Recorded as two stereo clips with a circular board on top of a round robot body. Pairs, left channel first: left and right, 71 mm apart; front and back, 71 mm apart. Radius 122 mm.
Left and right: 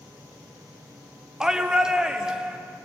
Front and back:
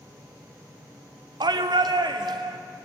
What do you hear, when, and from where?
1.4 s a shout: 170° right, 1.9 m